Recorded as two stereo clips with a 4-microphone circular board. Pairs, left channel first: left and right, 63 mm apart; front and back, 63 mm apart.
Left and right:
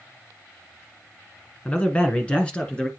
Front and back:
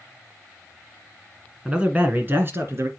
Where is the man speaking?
120° left, 1.6 m; by 2.9 s 160° left, 2 m.